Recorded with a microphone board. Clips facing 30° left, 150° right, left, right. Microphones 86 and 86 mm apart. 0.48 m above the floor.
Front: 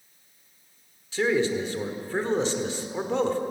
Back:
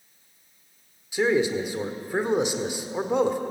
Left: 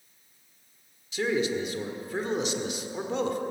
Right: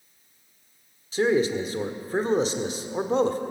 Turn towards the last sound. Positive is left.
turn(degrees=-85)